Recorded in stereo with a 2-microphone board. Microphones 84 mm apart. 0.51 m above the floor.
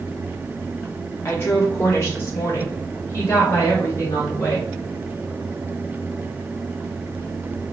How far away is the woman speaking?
About 1.2 m.